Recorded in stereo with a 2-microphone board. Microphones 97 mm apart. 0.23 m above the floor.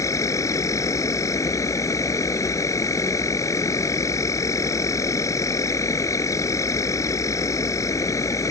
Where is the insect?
35° left (ahead or behind).